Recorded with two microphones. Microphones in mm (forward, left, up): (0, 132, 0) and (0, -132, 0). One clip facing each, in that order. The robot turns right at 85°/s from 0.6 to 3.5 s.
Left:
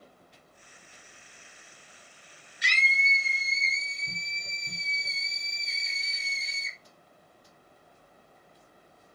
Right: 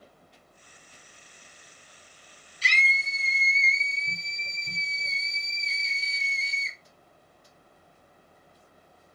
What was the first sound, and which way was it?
A scream, 155° left.